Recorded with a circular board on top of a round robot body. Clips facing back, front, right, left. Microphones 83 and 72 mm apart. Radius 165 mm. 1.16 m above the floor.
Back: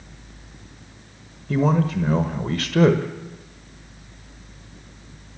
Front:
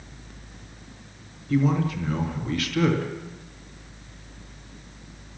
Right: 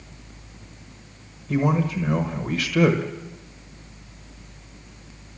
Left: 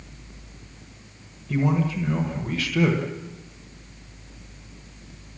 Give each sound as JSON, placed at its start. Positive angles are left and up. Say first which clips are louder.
{"t": 1.5, "sound": "a man speaking", "louder": "back 3 dB, right 1 dB", "azimuth_deg": -165, "distance_m": 1.3}